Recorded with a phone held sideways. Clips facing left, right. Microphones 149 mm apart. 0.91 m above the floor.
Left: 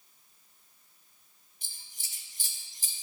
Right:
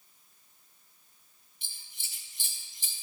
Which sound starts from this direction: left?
Scissors, at 1.6 s.